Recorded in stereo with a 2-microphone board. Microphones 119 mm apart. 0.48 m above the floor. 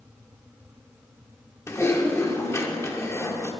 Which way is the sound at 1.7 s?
20° left (ahead or behind).